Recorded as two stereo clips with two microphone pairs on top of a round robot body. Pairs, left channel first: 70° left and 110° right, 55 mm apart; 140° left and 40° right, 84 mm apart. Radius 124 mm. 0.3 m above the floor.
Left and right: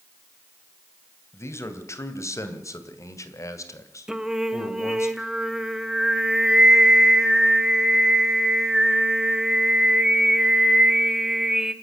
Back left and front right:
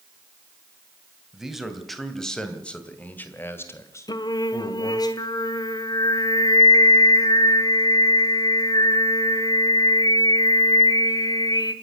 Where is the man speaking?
35° left, 3 m; by 5.1 s 100° left, 3 m.